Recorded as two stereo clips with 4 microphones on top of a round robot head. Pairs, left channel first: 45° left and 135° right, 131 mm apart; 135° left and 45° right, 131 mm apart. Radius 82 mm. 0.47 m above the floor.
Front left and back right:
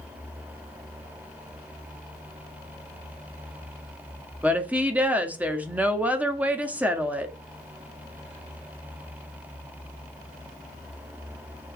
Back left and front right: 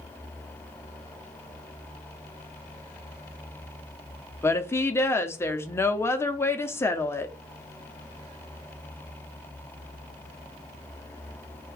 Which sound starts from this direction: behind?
A woman speaking, at 4.4 s.